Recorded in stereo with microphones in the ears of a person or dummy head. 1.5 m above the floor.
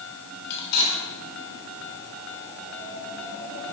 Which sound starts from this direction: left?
Cutlery clinking, at 0.5 s.